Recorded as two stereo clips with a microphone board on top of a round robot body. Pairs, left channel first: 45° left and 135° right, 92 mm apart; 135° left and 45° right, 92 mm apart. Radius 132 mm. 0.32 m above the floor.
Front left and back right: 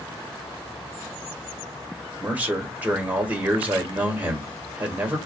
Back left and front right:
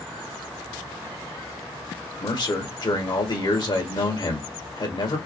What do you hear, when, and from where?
2.2 s a man speaking: 155° left, 1.7 m